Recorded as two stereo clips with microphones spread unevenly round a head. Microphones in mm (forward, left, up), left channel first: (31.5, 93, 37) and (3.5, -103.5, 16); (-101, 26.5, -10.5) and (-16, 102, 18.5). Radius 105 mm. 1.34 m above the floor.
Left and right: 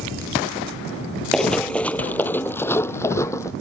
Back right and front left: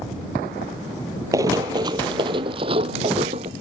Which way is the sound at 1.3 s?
Straight ahead.